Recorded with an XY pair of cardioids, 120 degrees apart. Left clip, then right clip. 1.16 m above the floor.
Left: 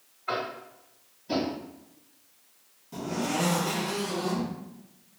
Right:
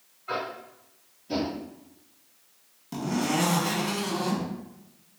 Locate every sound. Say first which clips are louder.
0.3 s tapping: left 1 dB; 60° left, 1.0 m
2.9 s a zipper: right 2 dB; 60° right, 0.9 m